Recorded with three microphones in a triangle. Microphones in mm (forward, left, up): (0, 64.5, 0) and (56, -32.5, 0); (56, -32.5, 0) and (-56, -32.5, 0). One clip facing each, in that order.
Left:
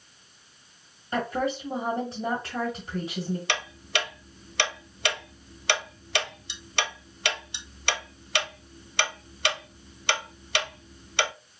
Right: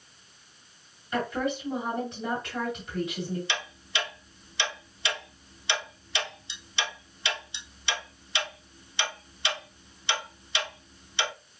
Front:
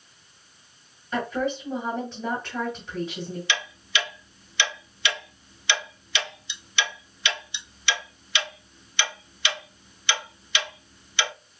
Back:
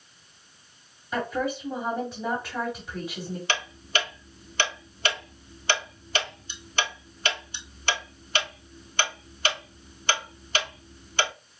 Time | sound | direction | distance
1.1 | a woman speaking | 105° left | 1.8 m
3.5 | ticking | 135° left | 0.5 m